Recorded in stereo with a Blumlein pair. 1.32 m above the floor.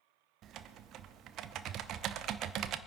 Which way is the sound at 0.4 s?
35° right.